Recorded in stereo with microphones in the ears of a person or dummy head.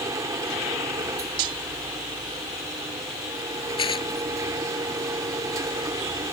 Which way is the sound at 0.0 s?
20° right (ahead or behind).